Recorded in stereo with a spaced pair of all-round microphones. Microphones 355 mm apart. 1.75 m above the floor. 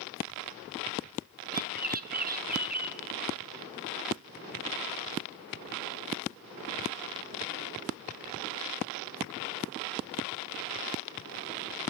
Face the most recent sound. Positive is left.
turn(degrees=-25)  # may be behind; listen again after turning